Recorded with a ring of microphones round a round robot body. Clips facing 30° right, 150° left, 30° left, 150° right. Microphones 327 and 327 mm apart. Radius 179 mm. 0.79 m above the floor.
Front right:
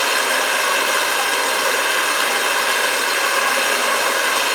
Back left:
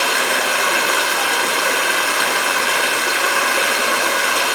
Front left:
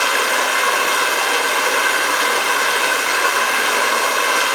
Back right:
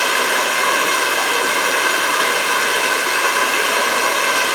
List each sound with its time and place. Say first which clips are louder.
0.0 s running water: back left 1 dB, back right 1 dB; 165° left, 0.9 m